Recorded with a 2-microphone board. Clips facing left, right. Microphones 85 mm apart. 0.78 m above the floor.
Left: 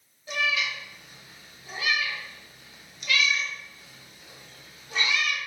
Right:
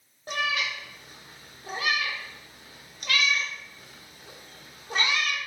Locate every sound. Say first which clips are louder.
0.3 s a cat meowing: even; 50° right (ahead or behind), 0.6 m